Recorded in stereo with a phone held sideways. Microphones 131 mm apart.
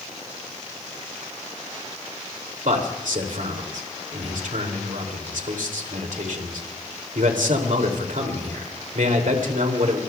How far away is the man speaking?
About 2.5 m.